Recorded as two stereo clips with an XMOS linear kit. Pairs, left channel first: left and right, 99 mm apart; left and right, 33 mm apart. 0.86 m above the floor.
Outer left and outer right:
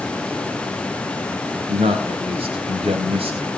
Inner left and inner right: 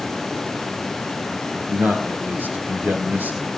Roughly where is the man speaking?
Right.